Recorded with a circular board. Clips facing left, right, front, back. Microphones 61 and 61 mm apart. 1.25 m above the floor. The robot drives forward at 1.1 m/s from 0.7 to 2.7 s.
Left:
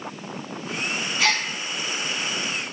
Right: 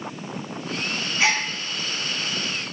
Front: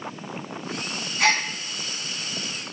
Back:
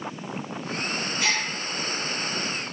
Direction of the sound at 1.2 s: 20° right.